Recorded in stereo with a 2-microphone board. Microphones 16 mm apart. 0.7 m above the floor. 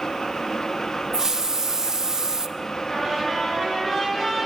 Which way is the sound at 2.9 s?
5° left (ahead or behind).